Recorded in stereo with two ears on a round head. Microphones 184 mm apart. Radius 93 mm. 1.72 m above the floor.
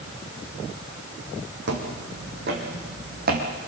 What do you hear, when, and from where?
1.7 s footsteps: 60° right (ahead or behind), 4.5 m; by 3.5 s 45° right (ahead or behind), 4 m